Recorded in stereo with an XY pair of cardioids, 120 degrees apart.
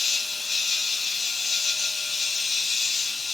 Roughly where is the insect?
Ahead left.